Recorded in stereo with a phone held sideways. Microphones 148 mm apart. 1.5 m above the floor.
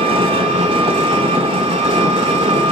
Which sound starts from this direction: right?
An engine running, at 0.0 s.